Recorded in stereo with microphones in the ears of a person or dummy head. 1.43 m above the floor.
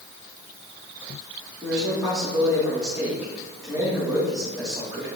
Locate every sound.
1.6 s a man speaking: centre (ahead or behind), 3.5 m